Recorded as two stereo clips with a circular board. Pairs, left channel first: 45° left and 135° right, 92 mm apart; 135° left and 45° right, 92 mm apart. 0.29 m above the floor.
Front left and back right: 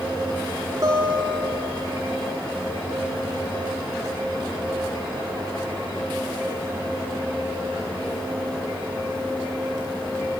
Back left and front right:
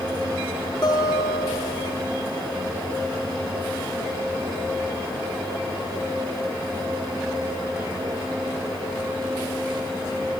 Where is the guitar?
170° left, 6 m.